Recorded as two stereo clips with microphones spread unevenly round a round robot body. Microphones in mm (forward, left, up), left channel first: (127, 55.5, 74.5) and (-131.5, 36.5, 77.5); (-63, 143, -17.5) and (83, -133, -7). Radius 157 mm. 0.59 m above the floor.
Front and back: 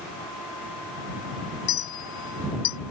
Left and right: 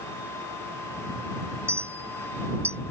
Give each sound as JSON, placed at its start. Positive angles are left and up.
{"t": 1.7, "sound": "a clink", "azimuth_deg": 20}